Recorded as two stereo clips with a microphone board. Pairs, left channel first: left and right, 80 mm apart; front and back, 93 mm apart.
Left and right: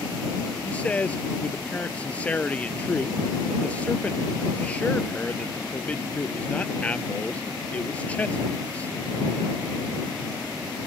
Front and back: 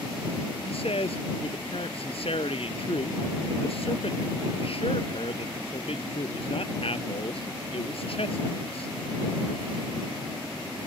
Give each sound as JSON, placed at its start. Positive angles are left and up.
{"t": 0.7, "sound": "a man speaking", "azimuth_deg": 15}